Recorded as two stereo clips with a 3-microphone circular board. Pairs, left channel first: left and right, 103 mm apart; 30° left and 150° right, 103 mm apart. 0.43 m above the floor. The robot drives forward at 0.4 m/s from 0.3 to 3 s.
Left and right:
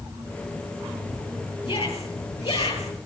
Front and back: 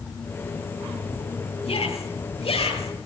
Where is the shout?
60° left, 10 m.